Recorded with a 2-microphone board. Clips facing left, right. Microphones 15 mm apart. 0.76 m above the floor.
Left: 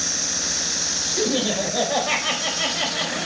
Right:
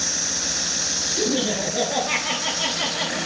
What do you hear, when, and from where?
1.2 s laughter: 45° left (ahead or behind), 4 m; by 3.3 s 25° left (ahead or behind), 5 m